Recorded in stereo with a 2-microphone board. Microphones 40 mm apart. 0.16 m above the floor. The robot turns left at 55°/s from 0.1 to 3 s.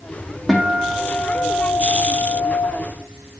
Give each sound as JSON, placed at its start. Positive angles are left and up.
{"t": 0.5, "sound": "a guitar", "azimuth_deg": 0, "distance_m": 3.0}